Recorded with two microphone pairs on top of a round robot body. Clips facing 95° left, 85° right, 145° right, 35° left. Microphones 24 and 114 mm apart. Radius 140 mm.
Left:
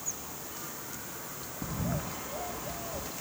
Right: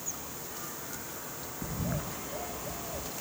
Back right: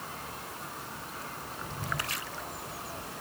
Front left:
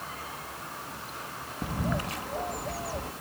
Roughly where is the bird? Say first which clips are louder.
Left 1 dB, front left 7 dB; ahead left.